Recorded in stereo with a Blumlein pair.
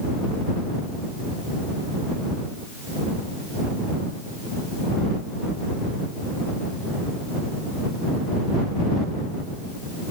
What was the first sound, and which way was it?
Only background noise.